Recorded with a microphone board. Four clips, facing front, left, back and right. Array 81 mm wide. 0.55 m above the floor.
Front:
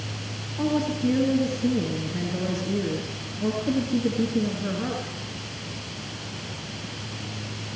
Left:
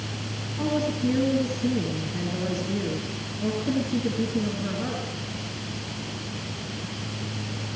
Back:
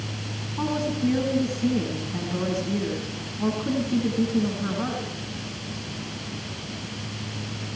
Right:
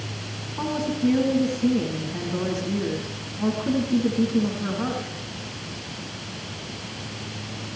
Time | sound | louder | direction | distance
0.6 | a woman speaking | right 1 dB, front 1 dB | 140° right | 6.5 m